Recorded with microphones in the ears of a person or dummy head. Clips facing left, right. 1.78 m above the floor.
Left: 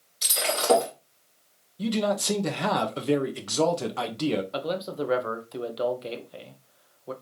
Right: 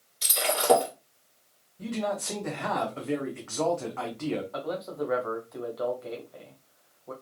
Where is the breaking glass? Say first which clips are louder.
Even; 5° right (ahead or behind), 2.5 m.